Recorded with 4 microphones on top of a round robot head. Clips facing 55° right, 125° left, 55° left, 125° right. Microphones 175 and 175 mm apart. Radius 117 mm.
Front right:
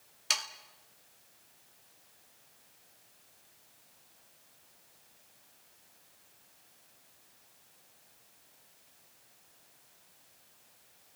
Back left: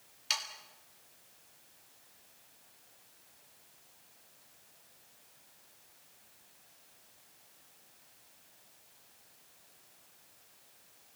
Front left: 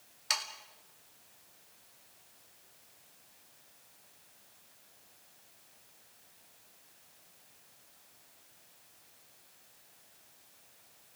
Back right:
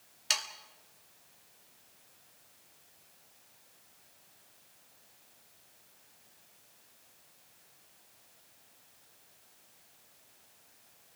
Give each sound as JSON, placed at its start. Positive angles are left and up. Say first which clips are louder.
{"t": 0.3, "sound": "sawing", "louder": "front right 2 dB, even", "azimuth_deg": -70, "distance_m": 1.9}